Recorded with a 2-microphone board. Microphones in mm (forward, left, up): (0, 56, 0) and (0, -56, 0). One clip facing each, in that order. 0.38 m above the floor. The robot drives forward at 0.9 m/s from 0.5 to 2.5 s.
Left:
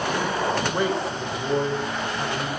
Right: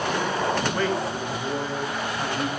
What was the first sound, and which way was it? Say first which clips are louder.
A man speaking: left 1 dB; 20° left (ahead or behind).